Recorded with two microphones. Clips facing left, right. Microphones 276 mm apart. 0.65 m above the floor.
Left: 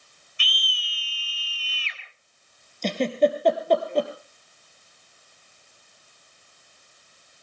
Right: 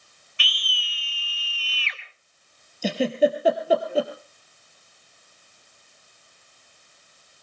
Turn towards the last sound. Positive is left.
turn(degrees=-5)  # may be behind; listen again after turning